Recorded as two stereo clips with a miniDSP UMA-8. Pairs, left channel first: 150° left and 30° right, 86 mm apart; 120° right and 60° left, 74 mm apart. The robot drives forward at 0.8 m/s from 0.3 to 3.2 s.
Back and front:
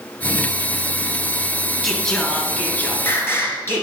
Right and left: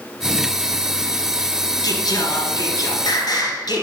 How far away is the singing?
About 1.4 m.